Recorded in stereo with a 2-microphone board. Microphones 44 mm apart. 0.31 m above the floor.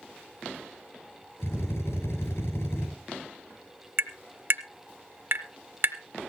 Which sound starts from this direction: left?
A drill, at 1.4 s.